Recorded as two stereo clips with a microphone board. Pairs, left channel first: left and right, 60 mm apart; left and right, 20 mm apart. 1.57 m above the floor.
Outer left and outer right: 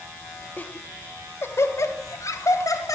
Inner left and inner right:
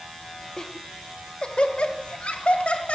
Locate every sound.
0.6 s laughter: 30° left (ahead or behind), 2.5 m; by 3.0 s 75° left (ahead or behind), 3.5 m